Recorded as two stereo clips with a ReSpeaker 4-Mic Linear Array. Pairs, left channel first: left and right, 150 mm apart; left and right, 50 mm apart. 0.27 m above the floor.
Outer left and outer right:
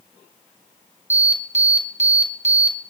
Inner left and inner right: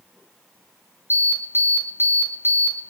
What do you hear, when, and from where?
1.1 s an alarm: 50° right (ahead or behind), 3 m